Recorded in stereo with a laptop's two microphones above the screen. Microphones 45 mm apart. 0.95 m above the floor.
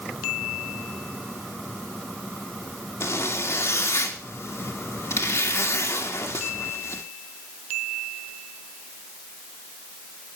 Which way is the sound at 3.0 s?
70° left (ahead or behind).